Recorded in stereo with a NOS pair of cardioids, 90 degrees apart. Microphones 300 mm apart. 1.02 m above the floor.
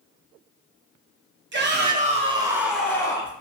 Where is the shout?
40° right, 1.0 m; by 3.3 s 20° left, 0.9 m.